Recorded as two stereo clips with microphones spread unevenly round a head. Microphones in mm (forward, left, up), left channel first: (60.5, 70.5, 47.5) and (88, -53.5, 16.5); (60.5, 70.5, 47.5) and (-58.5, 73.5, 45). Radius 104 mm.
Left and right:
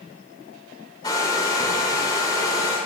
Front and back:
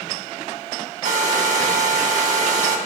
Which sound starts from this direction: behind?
A hair dryer, at 1.0 s.